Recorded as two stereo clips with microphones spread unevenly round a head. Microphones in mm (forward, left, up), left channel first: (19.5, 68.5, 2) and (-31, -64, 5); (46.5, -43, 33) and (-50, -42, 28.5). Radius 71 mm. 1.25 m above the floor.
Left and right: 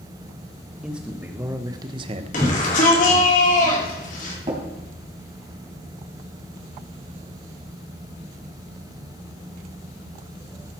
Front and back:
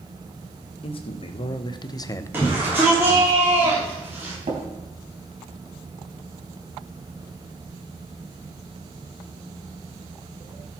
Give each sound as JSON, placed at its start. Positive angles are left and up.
{"t": 0.8, "sound": "a man speaking", "azimuth_deg": -25, "distance_m": 1.3}
{"t": 2.3, "sound": "a shout", "azimuth_deg": 105, "distance_m": 3.5}
{"t": 4.5, "sound": "tapping", "azimuth_deg": -165, "distance_m": 3.0}